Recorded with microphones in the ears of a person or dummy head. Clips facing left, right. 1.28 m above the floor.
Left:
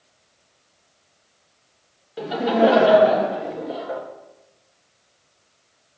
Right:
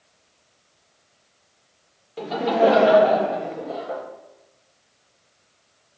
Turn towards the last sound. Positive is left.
turn(degrees=15)  # may be behind; listen again after turning